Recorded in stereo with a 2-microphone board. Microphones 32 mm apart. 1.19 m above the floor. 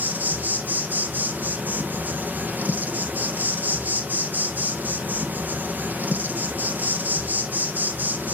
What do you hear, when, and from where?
0.0 s an insect: 70° right (ahead or behind), 1.2 m